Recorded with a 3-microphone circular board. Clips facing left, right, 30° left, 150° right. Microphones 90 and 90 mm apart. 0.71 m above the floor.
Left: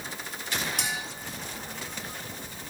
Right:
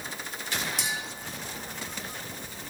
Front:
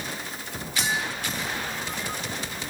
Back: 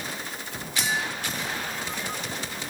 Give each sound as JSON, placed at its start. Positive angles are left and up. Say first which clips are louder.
{"t": 0.8, "sound": "a clink", "louder": "even, even", "azimuth_deg": 60, "distance_m": 1.7}